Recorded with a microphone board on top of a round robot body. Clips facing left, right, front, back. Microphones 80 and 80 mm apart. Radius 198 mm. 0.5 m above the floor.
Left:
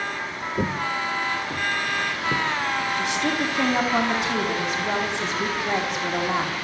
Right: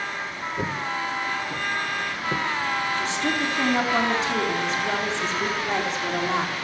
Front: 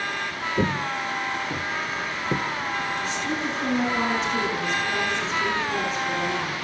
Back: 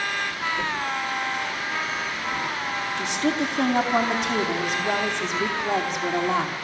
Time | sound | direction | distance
0.6 | footsteps | 20° left | 1.0 m
3.0 | a woman speaking | 165° left | 4.5 m